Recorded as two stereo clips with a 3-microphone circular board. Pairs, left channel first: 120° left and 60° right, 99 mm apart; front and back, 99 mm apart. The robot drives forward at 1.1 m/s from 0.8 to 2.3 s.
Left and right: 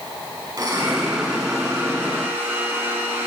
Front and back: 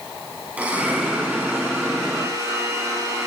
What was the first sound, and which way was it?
A blender, 105° right.